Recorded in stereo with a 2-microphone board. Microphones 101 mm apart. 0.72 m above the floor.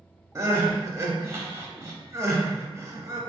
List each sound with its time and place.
0.3 s crying: 30° right (ahead or behind), 0.5 m